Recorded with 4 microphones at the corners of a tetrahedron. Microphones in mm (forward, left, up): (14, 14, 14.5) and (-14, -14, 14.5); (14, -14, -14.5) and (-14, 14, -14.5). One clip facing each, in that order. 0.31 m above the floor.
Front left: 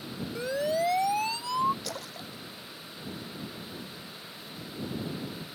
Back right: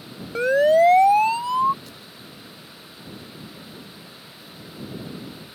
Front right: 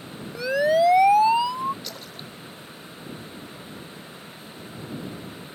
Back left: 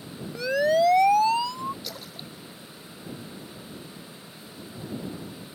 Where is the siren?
130° right; by 1.7 s 85° right.